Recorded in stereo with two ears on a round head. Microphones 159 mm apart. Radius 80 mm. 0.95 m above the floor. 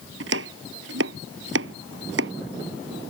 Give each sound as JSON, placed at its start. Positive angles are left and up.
{"t": 0.2, "sound": "chopping", "side_deg": -75}